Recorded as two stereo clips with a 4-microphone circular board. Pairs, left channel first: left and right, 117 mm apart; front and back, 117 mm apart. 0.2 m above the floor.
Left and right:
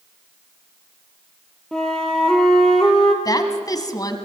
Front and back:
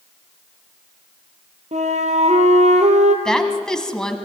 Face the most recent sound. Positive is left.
turn(degrees=80)